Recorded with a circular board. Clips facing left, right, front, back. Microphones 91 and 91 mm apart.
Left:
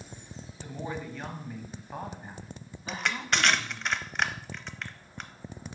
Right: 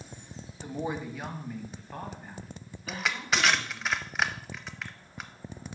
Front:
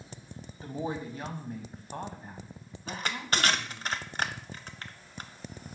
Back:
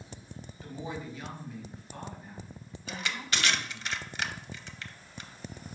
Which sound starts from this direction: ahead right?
A woman speaking, at 0.6 s.